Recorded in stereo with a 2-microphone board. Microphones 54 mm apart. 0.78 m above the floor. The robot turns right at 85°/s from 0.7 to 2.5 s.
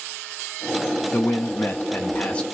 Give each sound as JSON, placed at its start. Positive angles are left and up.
{"t": 1.1, "sound": "a man speaking", "azimuth_deg": 50, "distance_m": 0.7}